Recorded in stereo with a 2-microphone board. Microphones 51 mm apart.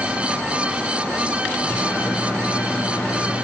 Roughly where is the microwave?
Left.